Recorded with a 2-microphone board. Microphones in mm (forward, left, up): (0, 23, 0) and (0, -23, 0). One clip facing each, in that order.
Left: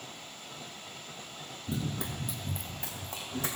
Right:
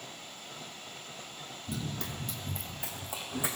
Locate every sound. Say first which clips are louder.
1.7 s running footsteps: left 3 dB; 30° left (ahead or behind), 0.7 m; by 3.6 s 15° right (ahead or behind), 1.4 m